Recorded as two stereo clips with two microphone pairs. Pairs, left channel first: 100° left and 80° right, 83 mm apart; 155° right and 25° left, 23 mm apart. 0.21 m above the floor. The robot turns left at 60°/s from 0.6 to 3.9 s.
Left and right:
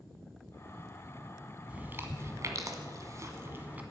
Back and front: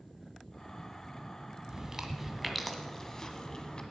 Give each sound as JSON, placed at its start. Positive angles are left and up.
{"t": 1.7, "sound": "chewing", "azimuth_deg": -15, "distance_m": 1.4}